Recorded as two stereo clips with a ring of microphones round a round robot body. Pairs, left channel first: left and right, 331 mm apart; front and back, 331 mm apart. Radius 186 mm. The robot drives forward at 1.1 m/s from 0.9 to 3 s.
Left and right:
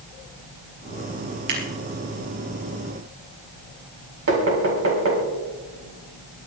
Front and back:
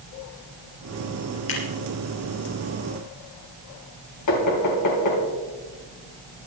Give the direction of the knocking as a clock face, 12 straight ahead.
1 o'clock.